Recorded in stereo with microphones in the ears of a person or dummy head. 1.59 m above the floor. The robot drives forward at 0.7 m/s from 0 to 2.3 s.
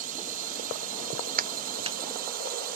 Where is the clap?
50° right (ahead or behind); by 2.0 s 35° right (ahead or behind).